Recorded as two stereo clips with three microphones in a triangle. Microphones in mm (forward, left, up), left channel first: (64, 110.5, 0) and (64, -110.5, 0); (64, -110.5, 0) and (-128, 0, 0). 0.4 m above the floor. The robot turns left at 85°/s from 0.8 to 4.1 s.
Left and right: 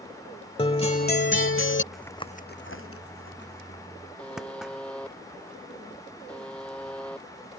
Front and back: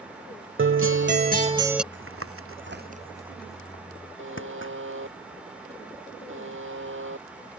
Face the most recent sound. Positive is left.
turn(degrees=175)